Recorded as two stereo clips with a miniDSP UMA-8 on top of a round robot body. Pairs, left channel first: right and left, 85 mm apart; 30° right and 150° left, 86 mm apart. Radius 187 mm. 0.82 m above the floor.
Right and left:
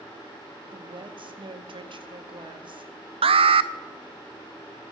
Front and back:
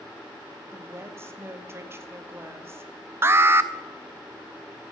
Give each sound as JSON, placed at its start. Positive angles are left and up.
{"t": 0.7, "sound": "a woman speaking", "azimuth_deg": 90, "distance_m": 2.0}
{"t": 3.2, "sound": "an alarm", "azimuth_deg": 85, "distance_m": 0.5}